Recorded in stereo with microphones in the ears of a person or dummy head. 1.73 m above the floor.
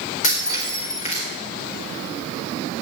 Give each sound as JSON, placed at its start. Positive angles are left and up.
{"t": 0.2, "sound": "breaking glass", "side_deg": 50, "distance_m": 4.0}